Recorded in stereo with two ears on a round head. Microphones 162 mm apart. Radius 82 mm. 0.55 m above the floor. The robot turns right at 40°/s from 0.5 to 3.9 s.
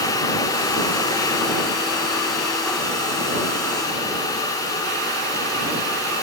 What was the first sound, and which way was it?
Only background noise.